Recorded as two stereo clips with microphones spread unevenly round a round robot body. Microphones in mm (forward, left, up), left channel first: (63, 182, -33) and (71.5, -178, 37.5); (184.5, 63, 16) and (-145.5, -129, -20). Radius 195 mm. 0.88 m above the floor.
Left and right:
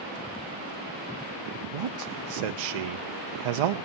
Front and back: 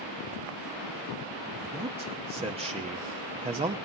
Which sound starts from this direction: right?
A man speaking, at 1.7 s.